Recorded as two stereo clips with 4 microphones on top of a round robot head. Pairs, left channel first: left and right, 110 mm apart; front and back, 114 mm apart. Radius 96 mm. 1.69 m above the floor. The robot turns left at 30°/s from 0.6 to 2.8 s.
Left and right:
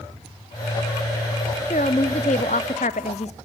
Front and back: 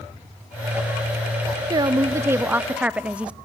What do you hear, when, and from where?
1.7 s a woman speaking: 135° left, 0.5 m; by 3.4 s 105° left, 0.5 m